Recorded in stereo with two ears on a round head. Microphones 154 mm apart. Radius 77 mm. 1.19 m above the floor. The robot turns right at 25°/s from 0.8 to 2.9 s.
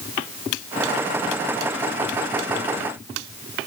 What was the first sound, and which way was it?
Only background noise.